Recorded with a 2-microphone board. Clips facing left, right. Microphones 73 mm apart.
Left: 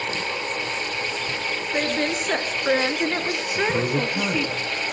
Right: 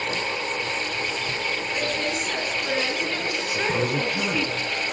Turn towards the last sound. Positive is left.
turn(degrees=15)  # may be behind; listen again after turning